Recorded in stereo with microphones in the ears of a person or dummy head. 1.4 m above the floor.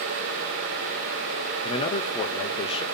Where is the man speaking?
30° left (ahead or behind), 1.9 m.